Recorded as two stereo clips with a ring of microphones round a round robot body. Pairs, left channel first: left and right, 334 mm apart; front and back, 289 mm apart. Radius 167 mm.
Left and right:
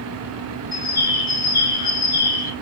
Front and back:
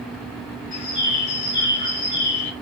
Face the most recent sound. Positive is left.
turn(degrees=10)